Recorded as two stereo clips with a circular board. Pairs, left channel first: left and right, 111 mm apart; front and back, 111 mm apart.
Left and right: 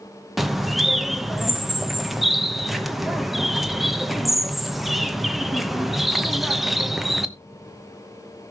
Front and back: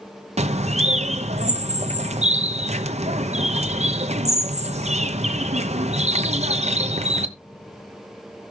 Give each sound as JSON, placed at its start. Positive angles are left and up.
{"t": 0.4, "sound": "a bird", "azimuth_deg": 180, "distance_m": 0.9}